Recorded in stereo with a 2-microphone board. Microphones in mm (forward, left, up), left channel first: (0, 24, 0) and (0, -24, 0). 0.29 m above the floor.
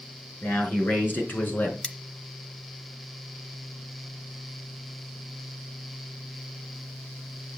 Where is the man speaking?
55° left (ahead or behind), 4.5 m; by 1.7 s 40° left (ahead or behind), 3.5 m.